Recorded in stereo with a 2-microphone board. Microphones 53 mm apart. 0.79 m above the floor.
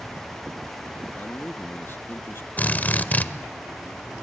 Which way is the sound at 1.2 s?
50° left (ahead or behind).